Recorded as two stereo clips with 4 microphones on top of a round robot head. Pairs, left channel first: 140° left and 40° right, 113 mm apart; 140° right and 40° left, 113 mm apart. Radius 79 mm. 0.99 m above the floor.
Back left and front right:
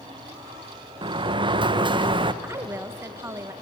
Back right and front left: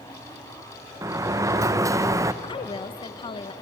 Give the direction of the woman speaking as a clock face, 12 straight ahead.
3 o'clock.